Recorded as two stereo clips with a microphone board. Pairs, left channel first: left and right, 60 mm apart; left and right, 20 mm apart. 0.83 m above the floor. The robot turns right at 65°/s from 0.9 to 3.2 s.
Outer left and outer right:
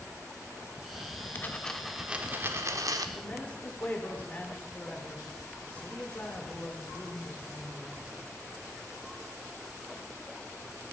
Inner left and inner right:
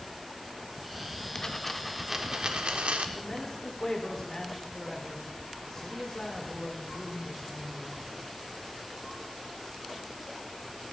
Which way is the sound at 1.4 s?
150° left.